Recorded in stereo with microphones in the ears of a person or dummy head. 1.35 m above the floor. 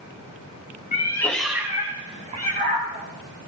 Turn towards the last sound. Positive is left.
turn(degrees=-45)  # may be behind; listen again after turning